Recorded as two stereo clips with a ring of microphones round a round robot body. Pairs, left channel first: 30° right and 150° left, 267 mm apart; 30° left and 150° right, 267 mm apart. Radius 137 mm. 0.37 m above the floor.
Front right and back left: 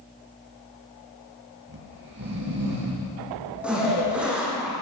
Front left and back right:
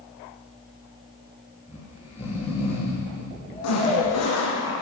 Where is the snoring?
100° left, 9 m.